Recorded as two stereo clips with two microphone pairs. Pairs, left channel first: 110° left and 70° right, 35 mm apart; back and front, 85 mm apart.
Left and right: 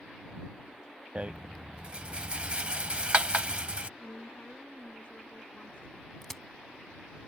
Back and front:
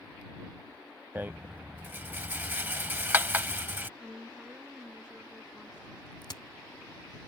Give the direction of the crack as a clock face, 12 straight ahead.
6 o'clock.